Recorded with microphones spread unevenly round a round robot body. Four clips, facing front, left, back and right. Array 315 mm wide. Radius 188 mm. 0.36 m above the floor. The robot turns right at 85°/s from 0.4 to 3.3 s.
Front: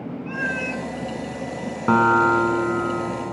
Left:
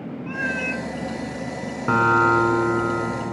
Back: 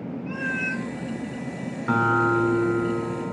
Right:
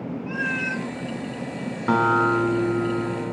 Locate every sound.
0.3 s a cat meowing: 145° left, 1.8 m; by 0.9 s 175° right, 1.8 m
1.9 s a guitar: 10° right, 1.0 m; by 3.3 s 110° left, 1.0 m